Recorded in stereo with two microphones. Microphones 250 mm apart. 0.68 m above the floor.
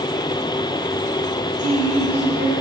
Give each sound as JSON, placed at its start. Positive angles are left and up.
{"t": 1.6, "sound": "a woman speaking", "side_deg": -85, "distance_m": 7.0}